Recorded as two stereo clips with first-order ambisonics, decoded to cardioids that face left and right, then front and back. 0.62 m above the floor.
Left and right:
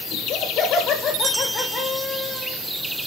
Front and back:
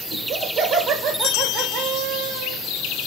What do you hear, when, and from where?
0.1 s laughter: 125° left, 1.7 m; by 2.6 s 165° left, 2.5 m